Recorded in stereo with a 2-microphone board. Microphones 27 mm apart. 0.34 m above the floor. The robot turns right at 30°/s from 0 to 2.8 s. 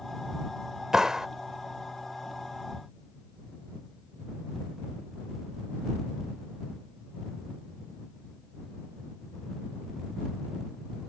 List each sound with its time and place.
0.9 s a clap: 25° right (ahead or behind); by 1.3 s 20° right (ahead or behind)